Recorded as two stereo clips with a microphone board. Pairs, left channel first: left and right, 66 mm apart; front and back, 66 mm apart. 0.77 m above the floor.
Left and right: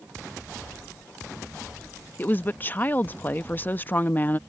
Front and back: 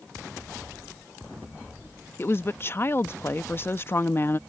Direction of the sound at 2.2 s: 35° left.